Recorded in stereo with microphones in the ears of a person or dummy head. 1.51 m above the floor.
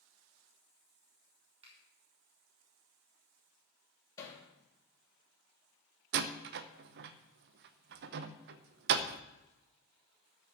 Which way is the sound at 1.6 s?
30° right (ahead or behind).